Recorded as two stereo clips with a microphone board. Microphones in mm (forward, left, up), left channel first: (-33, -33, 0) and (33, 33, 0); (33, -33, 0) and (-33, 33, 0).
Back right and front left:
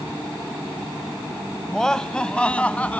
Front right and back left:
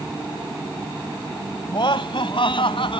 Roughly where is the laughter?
Ahead right.